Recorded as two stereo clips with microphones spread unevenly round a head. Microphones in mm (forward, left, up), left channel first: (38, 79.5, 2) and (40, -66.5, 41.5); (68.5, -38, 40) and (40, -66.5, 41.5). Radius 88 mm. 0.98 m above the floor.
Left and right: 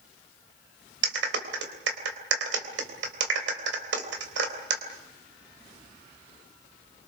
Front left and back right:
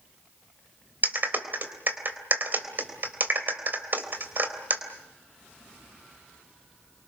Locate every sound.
1.0 s a clap: 95° right, 3.5 m